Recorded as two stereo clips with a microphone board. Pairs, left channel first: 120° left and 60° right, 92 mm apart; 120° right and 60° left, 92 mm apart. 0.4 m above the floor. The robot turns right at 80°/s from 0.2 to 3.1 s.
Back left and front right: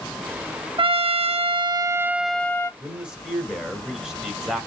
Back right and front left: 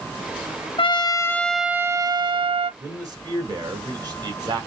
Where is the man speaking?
Straight ahead, 1.5 m; by 4.7 s 25° left, 1.5 m.